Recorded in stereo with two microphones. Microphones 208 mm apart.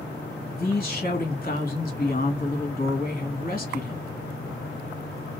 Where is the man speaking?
45° left (ahead or behind), 1.6 m.